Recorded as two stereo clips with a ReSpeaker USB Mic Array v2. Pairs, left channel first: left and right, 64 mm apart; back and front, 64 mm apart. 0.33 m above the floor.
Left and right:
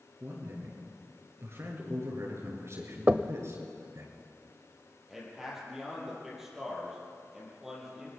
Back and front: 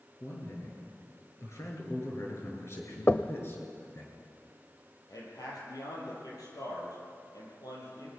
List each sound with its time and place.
0.2 s a man speaking: 140° right, 7.5 m; by 4.1 s 130° right, 5.5 m
3.1 s knocking: 145° right, 0.8 m
5.1 s a man speaking: 175° right, 9 m